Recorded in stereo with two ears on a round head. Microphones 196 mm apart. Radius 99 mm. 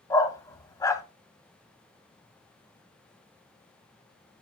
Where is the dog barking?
15° left (ahead or behind), 0.9 m.